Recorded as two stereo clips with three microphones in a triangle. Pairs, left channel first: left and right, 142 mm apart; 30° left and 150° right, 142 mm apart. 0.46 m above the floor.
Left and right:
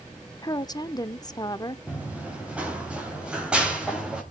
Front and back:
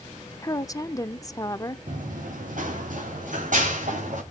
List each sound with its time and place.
0.4 s a woman speaking: 65° left, 0.8 m
1.9 s running footsteps: 170° right, 4 m; by 4.2 s 175° right, 6.5 m